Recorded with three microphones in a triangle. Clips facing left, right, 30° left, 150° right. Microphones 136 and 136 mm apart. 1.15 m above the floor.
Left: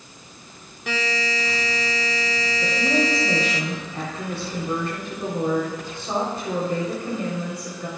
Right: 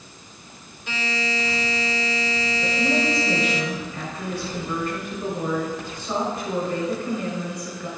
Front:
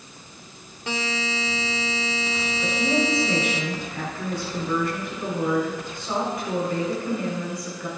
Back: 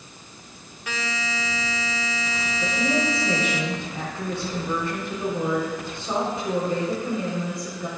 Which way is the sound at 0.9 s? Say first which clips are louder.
Left 2 dB, front 3 dB; 90° left.